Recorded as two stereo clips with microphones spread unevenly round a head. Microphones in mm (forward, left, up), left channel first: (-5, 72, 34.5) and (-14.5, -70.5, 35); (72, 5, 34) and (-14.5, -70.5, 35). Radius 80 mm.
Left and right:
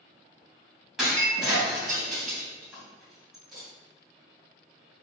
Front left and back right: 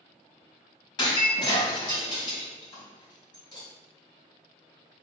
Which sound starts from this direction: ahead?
Breaking glass, at 1.0 s.